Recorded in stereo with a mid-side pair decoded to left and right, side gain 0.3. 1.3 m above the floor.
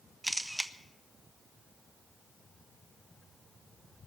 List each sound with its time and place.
0.2 s a camera shutter: 5° right, 1.1 m